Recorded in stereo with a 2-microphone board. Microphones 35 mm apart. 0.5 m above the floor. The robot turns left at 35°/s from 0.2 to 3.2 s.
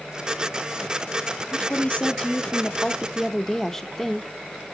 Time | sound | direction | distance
1.5 | a woman speaking | 75° left | 0.8 m